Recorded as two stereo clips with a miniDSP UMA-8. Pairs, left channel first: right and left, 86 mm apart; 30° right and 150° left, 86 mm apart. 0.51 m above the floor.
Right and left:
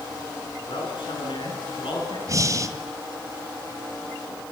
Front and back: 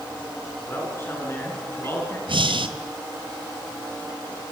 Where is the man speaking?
95° right, 8 m; by 2.2 s 90° right, 7 m.